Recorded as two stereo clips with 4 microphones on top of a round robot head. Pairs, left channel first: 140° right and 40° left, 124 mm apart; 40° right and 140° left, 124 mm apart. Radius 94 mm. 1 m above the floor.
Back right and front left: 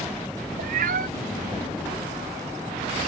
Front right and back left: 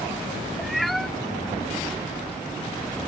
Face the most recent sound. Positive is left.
turn(degrees=50)